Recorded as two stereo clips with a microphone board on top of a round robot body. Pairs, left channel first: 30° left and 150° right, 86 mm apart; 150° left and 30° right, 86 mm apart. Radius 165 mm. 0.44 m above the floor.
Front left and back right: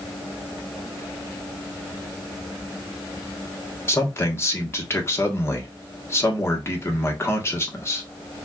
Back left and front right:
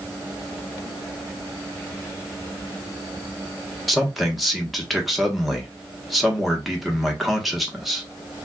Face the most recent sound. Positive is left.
turn(degrees=60)